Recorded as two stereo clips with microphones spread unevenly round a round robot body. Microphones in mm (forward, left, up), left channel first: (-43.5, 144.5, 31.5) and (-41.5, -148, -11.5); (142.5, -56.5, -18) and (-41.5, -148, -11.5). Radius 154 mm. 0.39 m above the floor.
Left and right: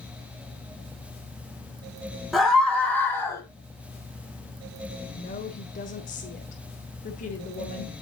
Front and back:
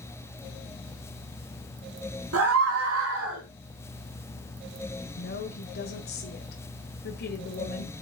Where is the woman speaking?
25° left, 1.4 m.